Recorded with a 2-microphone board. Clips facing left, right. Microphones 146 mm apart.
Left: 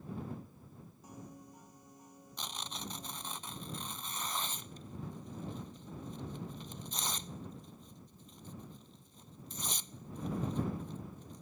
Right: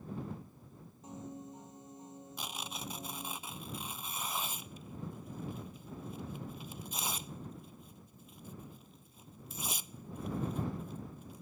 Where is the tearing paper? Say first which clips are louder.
Even; 10° right (ahead or behind).